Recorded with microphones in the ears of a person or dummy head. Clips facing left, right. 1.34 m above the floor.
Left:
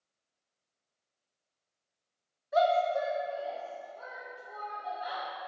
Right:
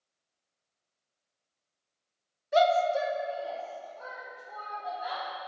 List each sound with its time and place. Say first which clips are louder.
2.5 s a shout: right 2 dB; 35° right (ahead or behind), 0.7 m; by 5.2 s 10° left (ahead or behind), 3 m